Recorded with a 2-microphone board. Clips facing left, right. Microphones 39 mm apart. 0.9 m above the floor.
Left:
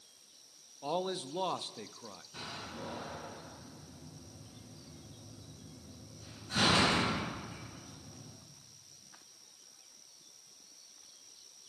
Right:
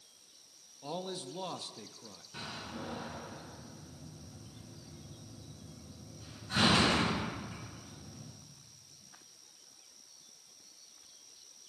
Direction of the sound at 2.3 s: 20° right (ahead or behind).